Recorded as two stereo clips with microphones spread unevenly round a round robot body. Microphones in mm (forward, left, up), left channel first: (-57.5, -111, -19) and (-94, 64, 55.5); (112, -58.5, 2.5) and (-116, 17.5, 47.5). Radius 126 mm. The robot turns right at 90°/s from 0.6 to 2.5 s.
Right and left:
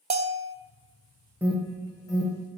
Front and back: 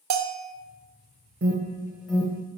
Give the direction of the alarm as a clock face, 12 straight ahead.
5 o'clock.